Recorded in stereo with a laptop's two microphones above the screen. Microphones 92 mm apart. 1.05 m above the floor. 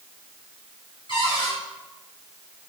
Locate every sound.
1.1 s a cupboard door: 65° left (ahead or behind), 6 m